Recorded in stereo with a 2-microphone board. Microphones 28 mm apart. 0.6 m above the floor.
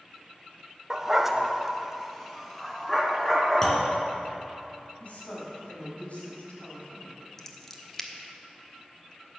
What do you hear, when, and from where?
0.9 s a dog barking: 20° right (ahead or behind), 0.6 m; by 3.9 s 10° left (ahead or behind), 3 m
3.6 s a clunk: 15° left (ahead or behind), 2.5 m
5.0 s a woman speaking: 55° left (ahead or behind), 4.5 m
7.4 s scissors: 20° left (ahead or behind), 1.1 m